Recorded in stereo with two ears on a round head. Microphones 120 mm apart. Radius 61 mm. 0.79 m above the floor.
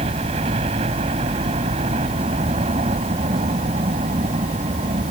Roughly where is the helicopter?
Right.